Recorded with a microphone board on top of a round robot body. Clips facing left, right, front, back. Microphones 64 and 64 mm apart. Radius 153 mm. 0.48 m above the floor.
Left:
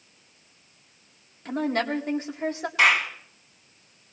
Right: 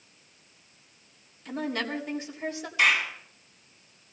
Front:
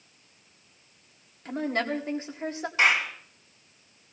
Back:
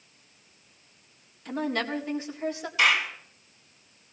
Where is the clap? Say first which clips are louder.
Left 3 dB, even; 55° left, 4.5 m.